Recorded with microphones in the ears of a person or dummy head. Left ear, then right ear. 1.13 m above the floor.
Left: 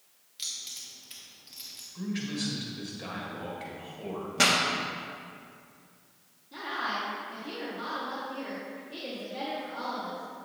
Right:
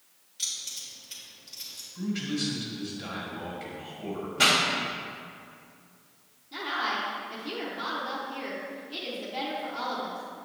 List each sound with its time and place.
0.4 s keys jangling: 15° left (ahead or behind), 1.8 m
1.9 s a man speaking: 25° left (ahead or behind), 1.5 m
4.4 s a pop: 50° left (ahead or behind), 1.2 m
6.5 s a woman speaking: 10° right (ahead or behind), 1.1 m